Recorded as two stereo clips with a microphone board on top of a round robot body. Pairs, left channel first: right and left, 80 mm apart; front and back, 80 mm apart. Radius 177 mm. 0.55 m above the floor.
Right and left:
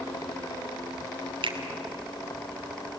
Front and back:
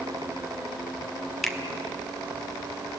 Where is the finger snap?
90° left, 2 m.